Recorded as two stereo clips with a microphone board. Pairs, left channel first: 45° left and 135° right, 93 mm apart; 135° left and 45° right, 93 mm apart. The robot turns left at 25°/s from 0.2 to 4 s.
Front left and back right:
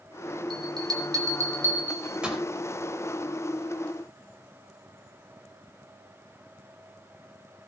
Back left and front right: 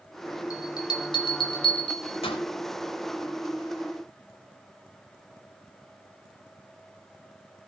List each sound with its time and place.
0.5 s a bell: 175° right, 4.5 m; by 2.4 s 140° left, 4.5 m